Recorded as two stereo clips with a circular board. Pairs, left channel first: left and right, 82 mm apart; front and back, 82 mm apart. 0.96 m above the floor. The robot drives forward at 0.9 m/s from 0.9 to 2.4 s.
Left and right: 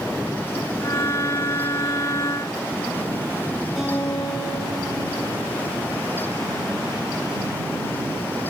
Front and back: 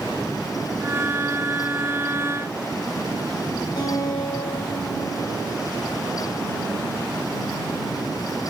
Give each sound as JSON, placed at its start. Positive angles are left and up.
{"t": 3.8, "sound": "a guitar", "azimuth_deg": -5, "distance_m": 4.0}